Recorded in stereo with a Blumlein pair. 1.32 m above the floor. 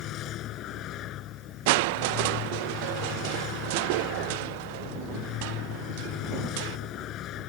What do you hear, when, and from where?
0.0 s a vehicle: 35° left
1.7 s crushing: 50° right